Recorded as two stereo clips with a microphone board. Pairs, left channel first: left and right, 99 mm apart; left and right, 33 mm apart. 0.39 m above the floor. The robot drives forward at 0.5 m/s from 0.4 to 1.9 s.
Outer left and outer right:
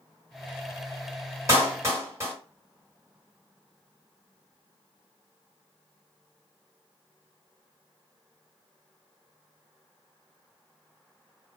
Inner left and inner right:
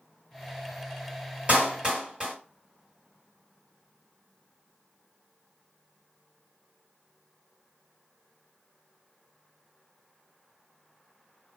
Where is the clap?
30° right (ahead or behind), 1.3 m; by 2.3 s 25° right (ahead or behind), 1.4 m.